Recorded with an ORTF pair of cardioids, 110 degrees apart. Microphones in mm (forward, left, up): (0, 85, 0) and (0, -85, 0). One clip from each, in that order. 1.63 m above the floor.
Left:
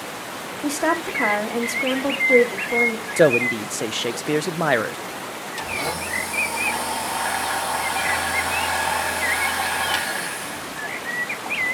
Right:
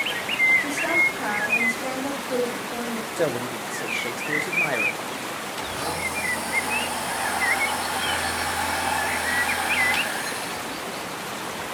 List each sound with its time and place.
0.6 s a woman speaking: 60° left, 2.5 m
3.2 s a man speaking: 45° left, 0.5 m
5.6 s a blender: 25° left, 2 m